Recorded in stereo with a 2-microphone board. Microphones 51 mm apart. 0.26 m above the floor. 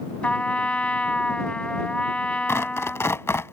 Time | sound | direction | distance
0.2 | a trumpet | 25° left (ahead or behind) | ?
2.5 | tearing paper | 60° left (ahead or behind) | ?